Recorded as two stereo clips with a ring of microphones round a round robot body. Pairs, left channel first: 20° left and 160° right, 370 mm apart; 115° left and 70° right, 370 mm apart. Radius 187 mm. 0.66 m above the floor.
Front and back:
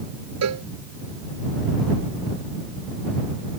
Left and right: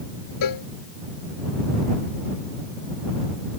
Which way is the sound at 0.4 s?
150° left.